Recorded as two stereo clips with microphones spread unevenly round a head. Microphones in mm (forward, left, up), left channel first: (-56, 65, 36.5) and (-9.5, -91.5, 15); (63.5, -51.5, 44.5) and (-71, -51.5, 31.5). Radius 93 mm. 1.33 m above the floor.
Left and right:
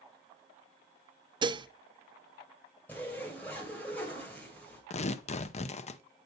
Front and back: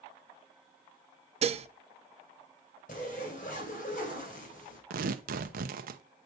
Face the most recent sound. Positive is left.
turn(degrees=160)